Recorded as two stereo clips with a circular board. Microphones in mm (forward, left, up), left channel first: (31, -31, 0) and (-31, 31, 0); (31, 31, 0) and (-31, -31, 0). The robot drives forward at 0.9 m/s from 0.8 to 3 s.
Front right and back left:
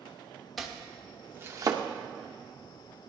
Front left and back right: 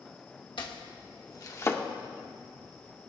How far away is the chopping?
About 1.1 m.